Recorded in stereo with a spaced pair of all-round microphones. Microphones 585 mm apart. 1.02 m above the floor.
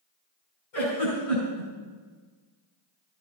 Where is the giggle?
75° left (ahead or behind), 5 m.